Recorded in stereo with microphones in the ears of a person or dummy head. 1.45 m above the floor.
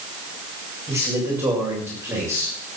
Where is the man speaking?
10° right (ahead or behind), 6.5 m.